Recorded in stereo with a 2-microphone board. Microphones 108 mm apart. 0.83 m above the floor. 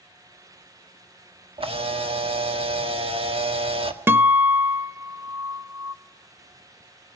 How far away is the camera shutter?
About 1.4 m.